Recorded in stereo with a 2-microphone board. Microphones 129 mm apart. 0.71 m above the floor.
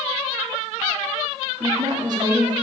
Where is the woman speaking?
35° right (ahead or behind), 1.4 m.